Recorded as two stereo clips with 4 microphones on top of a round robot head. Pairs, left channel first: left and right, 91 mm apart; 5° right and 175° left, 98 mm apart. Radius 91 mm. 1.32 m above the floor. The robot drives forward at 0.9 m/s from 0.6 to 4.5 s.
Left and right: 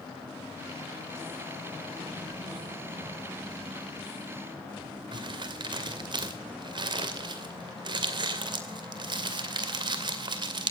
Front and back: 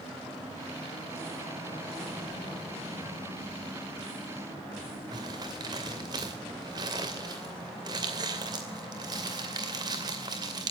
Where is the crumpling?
125° right, 2.5 m.